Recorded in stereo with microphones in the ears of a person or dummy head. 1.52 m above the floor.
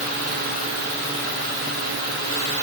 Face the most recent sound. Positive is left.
No sound to turn to.